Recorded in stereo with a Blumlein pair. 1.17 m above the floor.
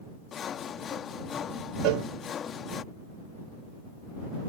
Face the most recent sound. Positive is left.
turn(degrees=-45)